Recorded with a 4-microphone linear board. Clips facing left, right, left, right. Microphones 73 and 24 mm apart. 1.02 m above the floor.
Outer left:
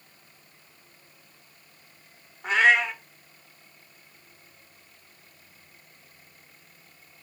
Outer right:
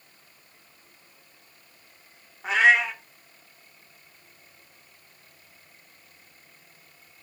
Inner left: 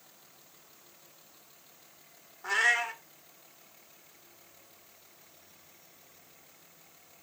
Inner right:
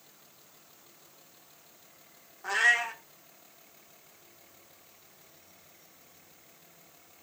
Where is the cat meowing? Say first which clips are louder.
Outer right 1 dB, inner right 2 dB; centre (ahead or behind), 0.9 m.